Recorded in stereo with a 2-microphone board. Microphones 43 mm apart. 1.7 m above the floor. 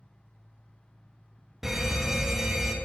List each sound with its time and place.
1.6 s a fire alarm: 10° right (ahead or behind), 0.9 m